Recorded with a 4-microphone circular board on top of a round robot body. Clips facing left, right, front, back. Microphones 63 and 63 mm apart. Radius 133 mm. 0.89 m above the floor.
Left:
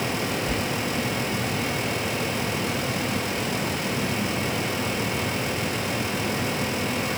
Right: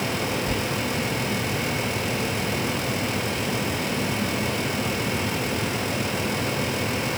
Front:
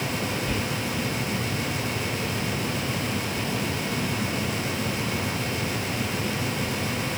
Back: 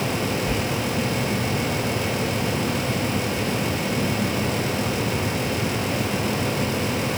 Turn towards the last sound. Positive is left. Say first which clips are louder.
# even, back 3 dB
turn(degrees=-110)